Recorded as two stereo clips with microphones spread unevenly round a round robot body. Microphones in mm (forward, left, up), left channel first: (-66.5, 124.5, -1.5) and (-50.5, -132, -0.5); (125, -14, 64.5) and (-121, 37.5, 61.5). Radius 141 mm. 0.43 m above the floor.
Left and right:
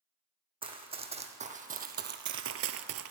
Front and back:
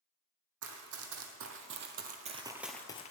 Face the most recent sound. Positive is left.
turn(degrees=-70)